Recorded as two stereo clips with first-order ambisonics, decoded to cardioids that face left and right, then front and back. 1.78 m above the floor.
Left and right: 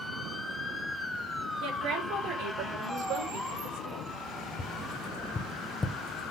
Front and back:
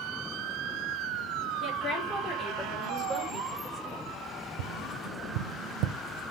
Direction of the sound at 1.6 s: 60° right.